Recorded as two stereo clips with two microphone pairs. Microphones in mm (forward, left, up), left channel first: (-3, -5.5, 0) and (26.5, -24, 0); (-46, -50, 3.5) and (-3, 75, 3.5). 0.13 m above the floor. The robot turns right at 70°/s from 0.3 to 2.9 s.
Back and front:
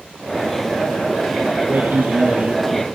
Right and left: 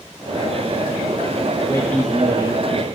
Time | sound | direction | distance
1.6 | a man speaking | 55° right | 3 m